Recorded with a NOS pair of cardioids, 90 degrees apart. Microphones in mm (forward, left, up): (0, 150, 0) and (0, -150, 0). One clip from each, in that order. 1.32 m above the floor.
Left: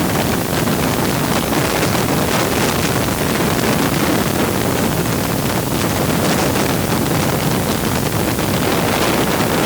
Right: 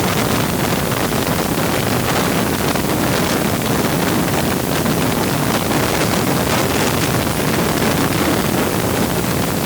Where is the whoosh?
No whoosh in this recording.